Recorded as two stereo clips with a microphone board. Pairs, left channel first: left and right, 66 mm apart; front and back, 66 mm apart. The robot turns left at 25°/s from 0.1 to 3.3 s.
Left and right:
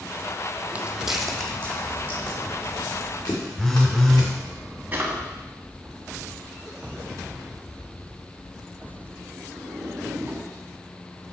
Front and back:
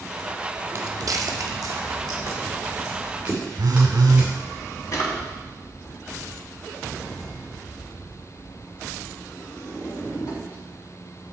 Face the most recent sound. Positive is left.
turn(degrees=-30)